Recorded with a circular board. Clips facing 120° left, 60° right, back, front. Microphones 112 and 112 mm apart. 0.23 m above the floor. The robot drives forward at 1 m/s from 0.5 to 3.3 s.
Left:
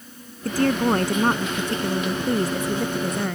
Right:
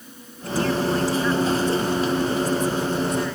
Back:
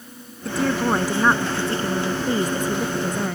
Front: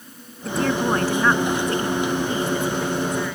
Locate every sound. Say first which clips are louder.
0.5 s a woman speaking: left 2 dB, even; 90° left; by 3.4 s 145° left